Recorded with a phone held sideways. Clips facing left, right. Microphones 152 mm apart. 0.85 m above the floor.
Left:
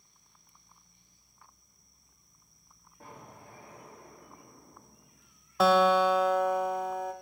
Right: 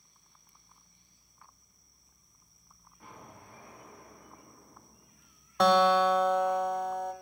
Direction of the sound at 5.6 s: 5° left (ahead or behind).